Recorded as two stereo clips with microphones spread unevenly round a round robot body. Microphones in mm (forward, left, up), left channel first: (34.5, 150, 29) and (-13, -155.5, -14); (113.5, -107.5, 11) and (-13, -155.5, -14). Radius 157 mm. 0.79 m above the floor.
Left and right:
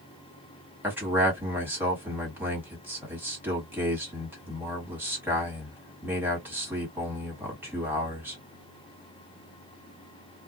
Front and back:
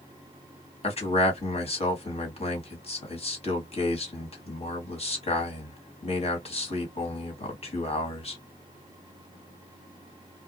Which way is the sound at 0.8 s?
20° right.